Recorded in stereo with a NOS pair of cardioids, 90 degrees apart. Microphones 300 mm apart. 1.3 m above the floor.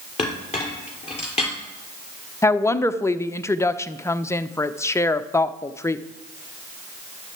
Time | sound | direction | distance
0.2 | a clink | 20° left | 3 m
2.4 | a woman speaking | 10° left | 0.6 m